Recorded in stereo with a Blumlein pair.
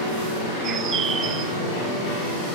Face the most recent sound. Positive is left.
turn(degrees=-25)